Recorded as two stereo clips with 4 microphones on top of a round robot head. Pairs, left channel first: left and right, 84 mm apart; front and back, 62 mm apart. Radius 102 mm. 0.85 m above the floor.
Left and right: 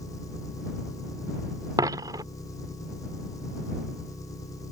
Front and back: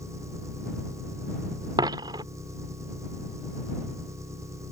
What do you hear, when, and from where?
0.0 s an engine running: 145° left
1.8 s a dropped coin: 145° right